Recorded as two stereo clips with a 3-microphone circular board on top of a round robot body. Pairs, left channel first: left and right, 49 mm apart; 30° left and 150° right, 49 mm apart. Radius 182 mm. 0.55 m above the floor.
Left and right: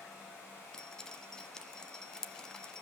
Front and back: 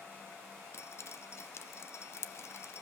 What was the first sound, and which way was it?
Dripping, 15° left.